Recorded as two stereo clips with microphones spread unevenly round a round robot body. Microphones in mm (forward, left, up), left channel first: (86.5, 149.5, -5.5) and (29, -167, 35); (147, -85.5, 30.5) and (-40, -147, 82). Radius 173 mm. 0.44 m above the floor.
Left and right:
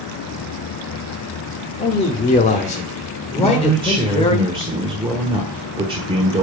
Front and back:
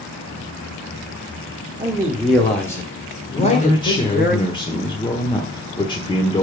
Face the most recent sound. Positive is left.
turn(degrees=-25)